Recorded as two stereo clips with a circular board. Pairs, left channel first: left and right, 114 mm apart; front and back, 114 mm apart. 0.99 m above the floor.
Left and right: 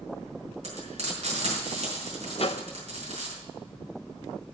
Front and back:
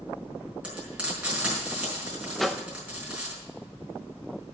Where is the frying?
100° right, 5 m.